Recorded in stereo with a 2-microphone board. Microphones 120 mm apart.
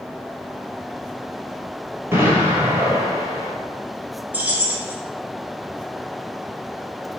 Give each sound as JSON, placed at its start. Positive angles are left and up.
{"t": 2.1, "sound": "an explosion", "side_deg": -20, "distance_m": 1.1}
{"t": 4.3, "sound": "keys jangling", "side_deg": -15, "distance_m": 1.1}